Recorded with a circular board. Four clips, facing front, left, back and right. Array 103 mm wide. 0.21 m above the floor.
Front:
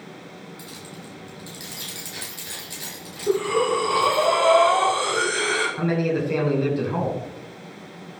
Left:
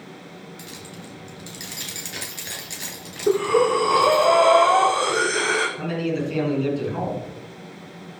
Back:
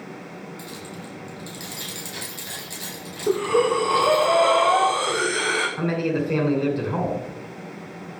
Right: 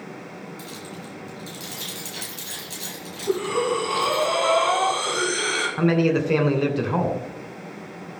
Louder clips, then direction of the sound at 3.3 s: Left 5 dB, back 1 dB; 105° left.